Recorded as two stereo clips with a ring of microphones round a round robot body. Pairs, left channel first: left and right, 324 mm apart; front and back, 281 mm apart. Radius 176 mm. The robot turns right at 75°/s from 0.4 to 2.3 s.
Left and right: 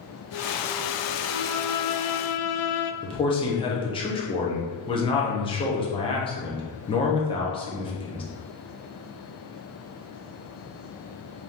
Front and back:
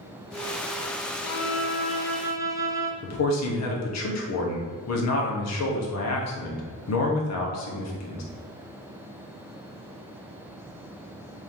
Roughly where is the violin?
Ahead.